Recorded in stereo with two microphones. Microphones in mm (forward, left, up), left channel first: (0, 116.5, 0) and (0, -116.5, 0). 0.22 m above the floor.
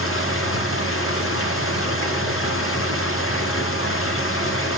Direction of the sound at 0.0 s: 65° left (ahead or behind).